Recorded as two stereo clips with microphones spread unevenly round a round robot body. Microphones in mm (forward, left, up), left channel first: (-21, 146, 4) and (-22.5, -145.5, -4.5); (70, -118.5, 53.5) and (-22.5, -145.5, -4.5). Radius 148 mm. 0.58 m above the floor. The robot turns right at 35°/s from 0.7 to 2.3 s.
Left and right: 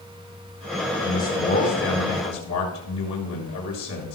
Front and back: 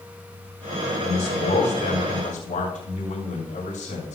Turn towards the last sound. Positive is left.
turn(degrees=50)